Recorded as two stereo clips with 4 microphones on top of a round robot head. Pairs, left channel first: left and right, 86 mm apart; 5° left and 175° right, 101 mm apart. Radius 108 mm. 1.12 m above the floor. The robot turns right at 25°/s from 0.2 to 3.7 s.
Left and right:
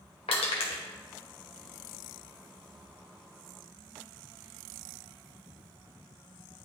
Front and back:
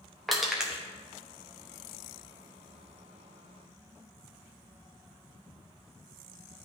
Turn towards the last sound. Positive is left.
turn(degrees=175)